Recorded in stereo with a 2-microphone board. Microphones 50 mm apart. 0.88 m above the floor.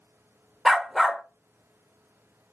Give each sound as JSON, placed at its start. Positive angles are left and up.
{"t": 0.7, "sound": "a dog barking", "side_deg": 0, "distance_m": 0.5}